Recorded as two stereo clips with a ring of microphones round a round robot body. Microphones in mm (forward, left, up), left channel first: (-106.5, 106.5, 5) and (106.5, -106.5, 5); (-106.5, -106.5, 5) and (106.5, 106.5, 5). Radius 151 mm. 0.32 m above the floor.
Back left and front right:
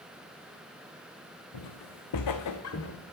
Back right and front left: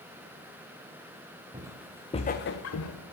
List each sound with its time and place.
1.5 s footsteps: 120° left, 1.4 m; by 3.0 s 170° right, 1.7 m